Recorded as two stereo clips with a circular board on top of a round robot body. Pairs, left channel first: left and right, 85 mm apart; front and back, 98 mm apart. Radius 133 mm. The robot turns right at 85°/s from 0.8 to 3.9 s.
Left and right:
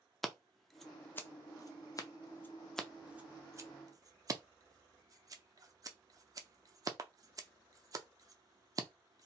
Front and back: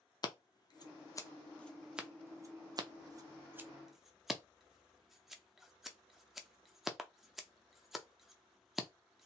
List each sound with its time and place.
0.2 s scissors: 5° left, 0.6 m; by 9.3 s 95° right, 0.6 m